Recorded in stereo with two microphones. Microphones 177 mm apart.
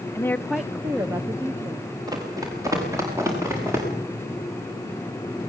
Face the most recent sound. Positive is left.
turn(degrees=-15)  # may be behind; listen again after turning